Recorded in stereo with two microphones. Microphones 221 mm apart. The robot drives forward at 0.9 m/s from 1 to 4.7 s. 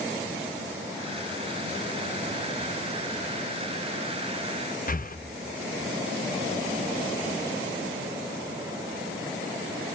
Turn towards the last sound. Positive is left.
turn(degrees=40)  # may be behind; listen again after turning